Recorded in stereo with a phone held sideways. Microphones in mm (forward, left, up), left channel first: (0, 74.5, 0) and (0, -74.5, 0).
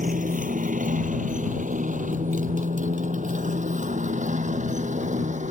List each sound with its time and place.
0.0 s a motorcycle: 65° right (ahead or behind); by 5.5 s 55° right (ahead or behind)